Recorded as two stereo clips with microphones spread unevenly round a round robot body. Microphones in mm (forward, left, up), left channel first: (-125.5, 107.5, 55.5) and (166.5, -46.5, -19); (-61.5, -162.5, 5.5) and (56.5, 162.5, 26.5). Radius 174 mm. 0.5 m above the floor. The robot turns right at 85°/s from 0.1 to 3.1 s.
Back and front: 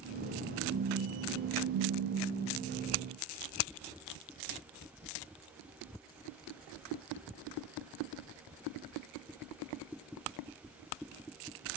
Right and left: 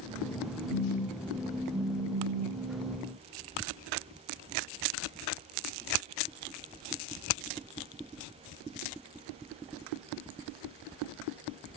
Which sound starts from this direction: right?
A phone buzzing, at 0.7 s.